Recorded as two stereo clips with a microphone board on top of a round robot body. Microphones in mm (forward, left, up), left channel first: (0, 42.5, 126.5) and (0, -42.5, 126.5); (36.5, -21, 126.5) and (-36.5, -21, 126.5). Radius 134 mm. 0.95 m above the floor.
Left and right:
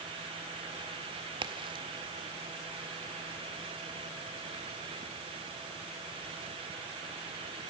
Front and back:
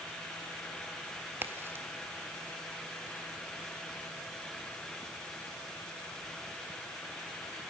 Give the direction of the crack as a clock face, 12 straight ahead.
4 o'clock.